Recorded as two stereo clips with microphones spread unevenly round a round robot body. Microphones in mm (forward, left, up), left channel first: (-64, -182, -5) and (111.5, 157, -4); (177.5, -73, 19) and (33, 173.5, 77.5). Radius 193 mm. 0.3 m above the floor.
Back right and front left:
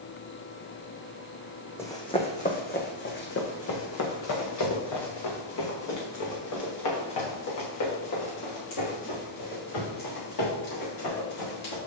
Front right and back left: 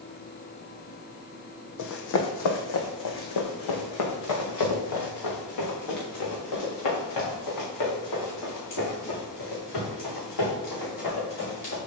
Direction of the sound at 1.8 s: 35° right.